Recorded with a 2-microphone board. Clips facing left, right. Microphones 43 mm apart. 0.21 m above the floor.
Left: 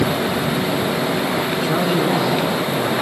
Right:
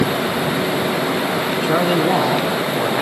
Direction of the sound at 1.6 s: 25° right (ahead or behind).